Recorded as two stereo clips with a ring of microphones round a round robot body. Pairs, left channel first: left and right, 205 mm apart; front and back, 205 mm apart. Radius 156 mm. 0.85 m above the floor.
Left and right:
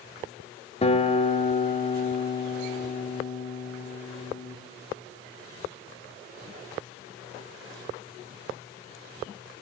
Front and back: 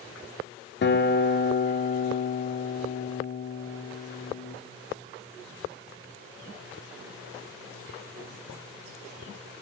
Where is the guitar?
30° left, 2 m.